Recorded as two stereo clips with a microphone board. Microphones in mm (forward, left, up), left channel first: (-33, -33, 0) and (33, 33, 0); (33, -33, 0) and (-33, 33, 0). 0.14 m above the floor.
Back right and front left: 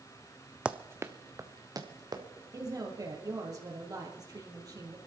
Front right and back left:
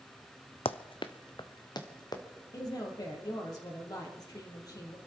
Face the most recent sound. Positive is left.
turn(degrees=0)